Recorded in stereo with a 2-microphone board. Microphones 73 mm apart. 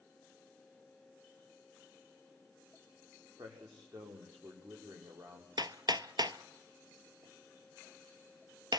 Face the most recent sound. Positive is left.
turn(degrees=-70)  # may be behind; listen again after turning